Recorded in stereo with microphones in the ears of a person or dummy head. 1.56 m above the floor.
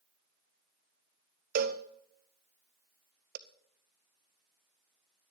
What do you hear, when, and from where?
1.6 s a cowbell: 50° right (ahead or behind), 0.7 m